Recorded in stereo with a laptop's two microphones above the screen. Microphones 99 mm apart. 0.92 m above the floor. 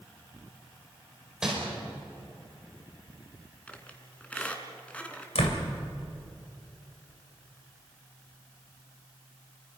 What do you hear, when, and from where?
1.4 s crumpling: 5° right (ahead or behind), 5 m
3.7 s a squeak: 15° left (ahead or behind), 2.5 m
5.3 s a door slam: 80° left, 2.5 m